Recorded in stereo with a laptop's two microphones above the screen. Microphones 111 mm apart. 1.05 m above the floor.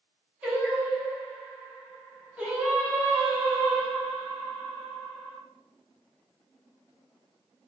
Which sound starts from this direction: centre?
Singing, at 0.4 s.